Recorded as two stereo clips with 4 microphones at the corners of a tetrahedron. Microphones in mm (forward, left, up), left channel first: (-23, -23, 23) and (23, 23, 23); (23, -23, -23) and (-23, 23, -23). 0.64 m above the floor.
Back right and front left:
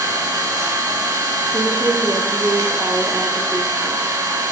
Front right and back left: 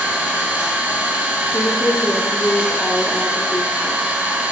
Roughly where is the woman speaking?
Ahead.